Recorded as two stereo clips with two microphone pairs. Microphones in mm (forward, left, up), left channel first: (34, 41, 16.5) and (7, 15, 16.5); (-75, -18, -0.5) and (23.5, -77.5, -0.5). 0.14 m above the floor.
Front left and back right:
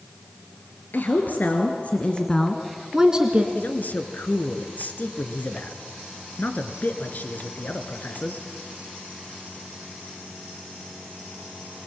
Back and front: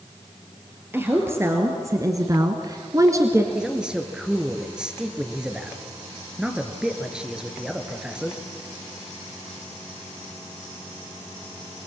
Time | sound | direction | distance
0.9 | a woman speaking | 35° left | 2.5 m
3.5 | a man speaking | 50° left | 2 m